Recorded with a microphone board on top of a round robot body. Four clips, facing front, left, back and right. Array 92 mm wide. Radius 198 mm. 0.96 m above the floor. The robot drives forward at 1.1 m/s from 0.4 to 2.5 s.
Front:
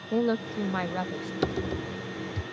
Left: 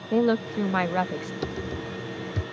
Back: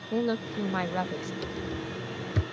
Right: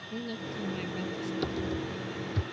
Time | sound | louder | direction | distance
0.1 | a woman speaking | left 15 dB, front 2 dB | 75° left | ?
1.4 | typing on a keyboard | left 1 dB, front 5 dB | 5° left | ?